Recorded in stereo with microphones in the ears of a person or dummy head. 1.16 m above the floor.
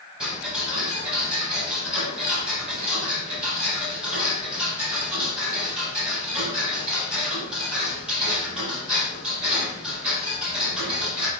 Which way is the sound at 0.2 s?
10° right (ahead or behind).